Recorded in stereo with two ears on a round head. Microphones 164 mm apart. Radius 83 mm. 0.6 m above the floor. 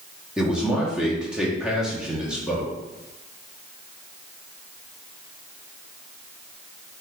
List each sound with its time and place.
0.4 s a man speaking: 5° right (ahead or behind), 0.6 m